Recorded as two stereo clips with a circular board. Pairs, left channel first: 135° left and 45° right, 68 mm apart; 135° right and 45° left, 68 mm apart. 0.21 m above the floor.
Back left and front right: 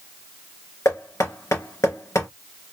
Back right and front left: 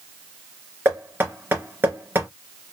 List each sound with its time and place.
0.8 s knocking: 100° left, 3 m